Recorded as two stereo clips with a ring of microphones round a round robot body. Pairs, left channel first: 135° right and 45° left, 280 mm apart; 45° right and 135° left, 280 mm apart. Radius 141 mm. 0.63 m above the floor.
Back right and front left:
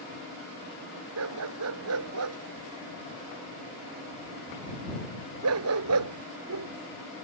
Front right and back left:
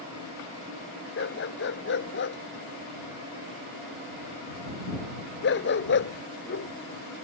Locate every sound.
1.2 s a dog barking: 5° left